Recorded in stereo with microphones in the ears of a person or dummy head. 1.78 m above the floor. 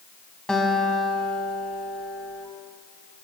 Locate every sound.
0.5 s a guitar: centre (ahead or behind), 2 m